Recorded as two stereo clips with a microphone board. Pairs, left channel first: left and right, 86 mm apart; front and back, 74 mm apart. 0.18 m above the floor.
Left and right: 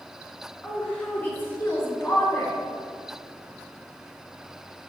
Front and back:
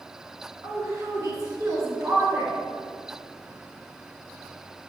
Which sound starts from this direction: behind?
A woman speaking, at 0.6 s.